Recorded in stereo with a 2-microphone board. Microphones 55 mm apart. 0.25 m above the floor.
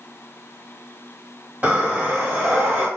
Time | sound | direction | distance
1.6 | breathing | 25° right (ahead or behind) | 1.2 m